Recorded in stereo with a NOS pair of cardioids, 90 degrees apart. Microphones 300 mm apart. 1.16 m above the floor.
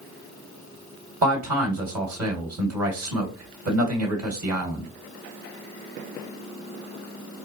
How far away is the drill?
I don't hear a drill.